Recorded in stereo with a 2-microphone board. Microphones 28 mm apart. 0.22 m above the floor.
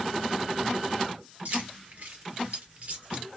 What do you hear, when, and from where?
1.4 s keys jangling: 70° right (ahead or behind), 2.5 m; by 3.2 s 60° right (ahead or behind), 1.7 m